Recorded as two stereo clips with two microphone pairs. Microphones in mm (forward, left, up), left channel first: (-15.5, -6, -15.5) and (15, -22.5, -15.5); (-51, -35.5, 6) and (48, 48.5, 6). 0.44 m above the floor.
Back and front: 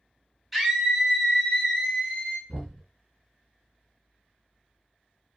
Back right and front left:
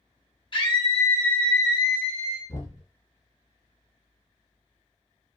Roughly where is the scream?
Behind right.